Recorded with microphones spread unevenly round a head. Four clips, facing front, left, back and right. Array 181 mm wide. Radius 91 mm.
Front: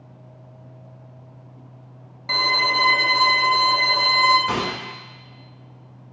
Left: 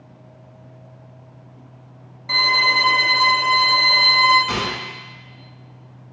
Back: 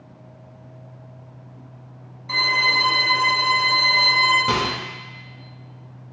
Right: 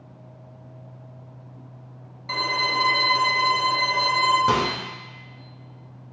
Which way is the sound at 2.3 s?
5° right.